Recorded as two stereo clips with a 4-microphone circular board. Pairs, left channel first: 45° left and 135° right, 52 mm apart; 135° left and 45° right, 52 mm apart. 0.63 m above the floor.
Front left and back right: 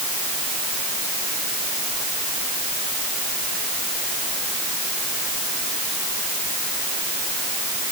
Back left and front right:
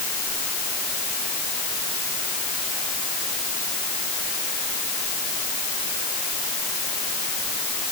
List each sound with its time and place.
Only background noise.